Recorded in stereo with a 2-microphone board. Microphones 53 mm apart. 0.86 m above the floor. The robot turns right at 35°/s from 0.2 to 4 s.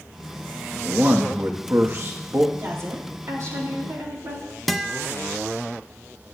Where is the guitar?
Centre (ahead or behind), 0.6 m.